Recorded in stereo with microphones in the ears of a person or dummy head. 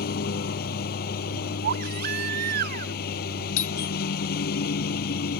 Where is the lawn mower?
65° left (ahead or behind).